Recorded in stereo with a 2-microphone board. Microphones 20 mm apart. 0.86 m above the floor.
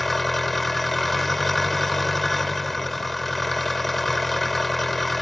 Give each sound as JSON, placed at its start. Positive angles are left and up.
{"t": 0.0, "sound": "an engine running", "side_deg": 15}